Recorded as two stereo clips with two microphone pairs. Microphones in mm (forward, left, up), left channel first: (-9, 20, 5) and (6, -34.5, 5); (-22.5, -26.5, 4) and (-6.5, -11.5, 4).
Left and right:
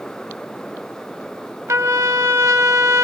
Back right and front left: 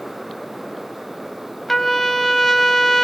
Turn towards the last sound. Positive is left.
turn(degrees=-65)